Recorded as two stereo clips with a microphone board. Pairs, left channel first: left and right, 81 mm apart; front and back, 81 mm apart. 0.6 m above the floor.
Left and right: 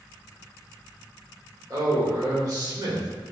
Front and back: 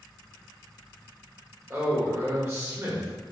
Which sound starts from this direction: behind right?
A man speaking, at 1.7 s.